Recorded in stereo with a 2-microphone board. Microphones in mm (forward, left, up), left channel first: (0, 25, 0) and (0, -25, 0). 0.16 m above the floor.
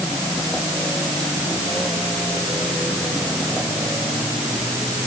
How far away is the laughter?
I don't hear laughter.